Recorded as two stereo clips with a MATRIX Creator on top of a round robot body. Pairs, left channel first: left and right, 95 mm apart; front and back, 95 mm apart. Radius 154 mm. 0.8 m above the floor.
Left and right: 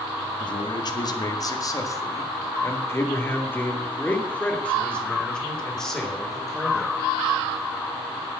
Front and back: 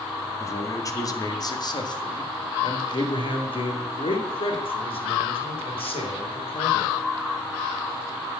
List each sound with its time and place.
0.4 s a man speaking: 60° left, 2 m; by 7.0 s straight ahead, 4 m